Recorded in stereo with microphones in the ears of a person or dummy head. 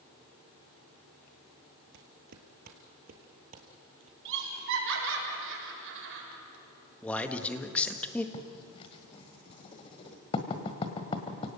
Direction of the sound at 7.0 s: 5° left (ahead or behind).